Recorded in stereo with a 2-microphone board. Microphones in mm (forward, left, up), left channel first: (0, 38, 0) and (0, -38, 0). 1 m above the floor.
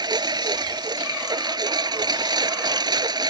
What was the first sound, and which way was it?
A lawn mower, 70° right (ahead or behind).